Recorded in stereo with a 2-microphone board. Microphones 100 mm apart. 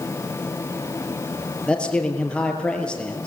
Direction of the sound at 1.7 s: 10° left (ahead or behind).